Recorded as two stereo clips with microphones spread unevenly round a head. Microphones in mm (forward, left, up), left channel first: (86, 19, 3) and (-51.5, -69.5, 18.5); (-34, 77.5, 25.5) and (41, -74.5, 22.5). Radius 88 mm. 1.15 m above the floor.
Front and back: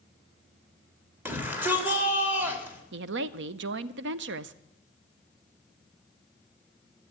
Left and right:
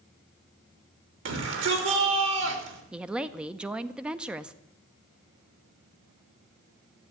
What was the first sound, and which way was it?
A shout, 70° right.